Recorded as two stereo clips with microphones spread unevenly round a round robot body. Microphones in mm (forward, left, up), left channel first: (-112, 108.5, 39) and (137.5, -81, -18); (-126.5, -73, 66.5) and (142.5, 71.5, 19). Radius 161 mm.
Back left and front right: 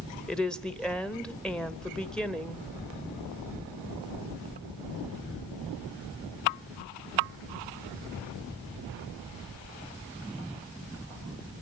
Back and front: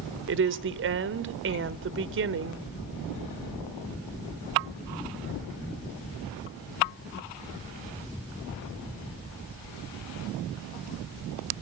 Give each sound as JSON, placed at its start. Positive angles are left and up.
{"t": 0.3, "sound": "a woman speaking", "azimuth_deg": 45, "distance_m": 1.2}